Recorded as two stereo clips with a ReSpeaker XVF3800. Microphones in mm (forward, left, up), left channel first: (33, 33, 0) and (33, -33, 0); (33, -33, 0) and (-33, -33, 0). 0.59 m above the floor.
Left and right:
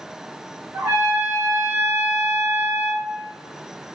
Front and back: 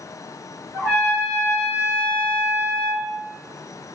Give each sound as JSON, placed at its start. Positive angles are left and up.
{"t": 0.7, "sound": "a trumpet", "azimuth_deg": -60, "distance_m": 1.8}